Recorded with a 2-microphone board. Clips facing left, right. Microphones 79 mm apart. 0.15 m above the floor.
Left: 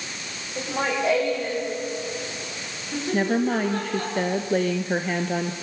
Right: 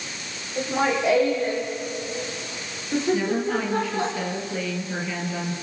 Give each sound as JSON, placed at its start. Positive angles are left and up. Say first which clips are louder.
{"t": 0.6, "sound": "laughter", "louder": "right 3 dB", "side_deg": 0, "distance_m": 7.5}
{"t": 3.1, "sound": "a woman speaking", "louder": "left 1 dB", "side_deg": 55, "distance_m": 2.5}